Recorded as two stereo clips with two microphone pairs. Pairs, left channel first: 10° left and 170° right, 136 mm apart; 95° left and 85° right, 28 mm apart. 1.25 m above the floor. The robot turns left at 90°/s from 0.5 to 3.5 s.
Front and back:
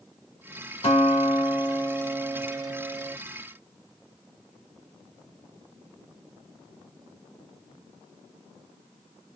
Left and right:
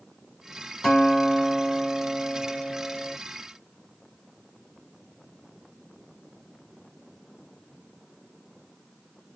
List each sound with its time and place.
0.8 s a guitar: 10° left, 1.6 m; by 3.1 s 165° left, 1.6 m